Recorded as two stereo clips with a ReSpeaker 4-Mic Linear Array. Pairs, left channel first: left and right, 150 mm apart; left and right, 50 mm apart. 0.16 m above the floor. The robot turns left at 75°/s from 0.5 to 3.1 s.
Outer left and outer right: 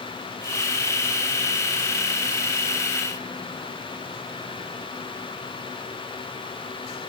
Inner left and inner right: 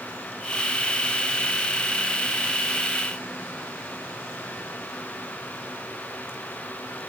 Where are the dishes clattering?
No dishes clattering in this recording.